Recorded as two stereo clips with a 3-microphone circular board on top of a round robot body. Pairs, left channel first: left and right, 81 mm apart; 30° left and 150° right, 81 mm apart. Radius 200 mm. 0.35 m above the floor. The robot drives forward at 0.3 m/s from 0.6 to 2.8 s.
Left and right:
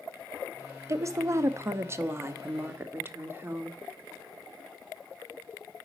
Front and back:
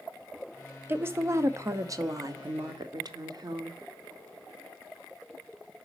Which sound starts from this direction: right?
A woman speaking, at 0.9 s.